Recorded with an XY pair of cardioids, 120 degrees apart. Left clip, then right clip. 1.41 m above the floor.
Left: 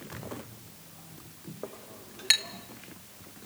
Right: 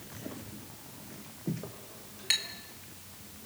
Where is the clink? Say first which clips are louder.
Left 3 dB; 45° left, 1.1 m.